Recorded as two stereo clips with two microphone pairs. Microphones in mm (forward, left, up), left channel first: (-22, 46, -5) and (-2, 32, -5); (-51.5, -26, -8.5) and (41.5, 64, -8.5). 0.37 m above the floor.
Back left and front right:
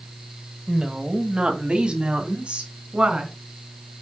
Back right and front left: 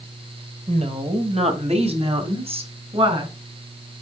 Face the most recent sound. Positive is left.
turn(degrees=0)